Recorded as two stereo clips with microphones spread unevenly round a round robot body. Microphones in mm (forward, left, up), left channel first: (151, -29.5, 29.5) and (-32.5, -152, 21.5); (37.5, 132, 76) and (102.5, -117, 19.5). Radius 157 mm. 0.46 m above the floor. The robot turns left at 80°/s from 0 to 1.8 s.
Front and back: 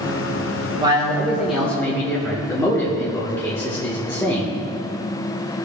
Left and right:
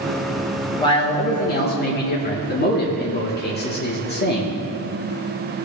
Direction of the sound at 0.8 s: 175° right.